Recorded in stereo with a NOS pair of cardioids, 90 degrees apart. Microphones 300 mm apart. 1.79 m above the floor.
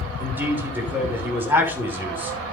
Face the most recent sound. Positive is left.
turn(degrees=-5)